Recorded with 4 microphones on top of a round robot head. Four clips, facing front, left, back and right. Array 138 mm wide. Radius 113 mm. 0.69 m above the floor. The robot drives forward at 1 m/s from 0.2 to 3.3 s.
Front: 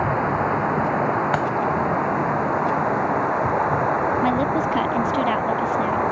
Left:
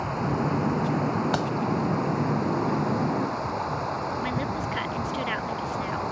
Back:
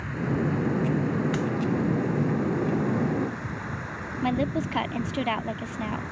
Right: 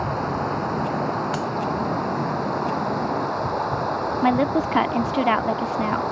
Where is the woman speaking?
75° right.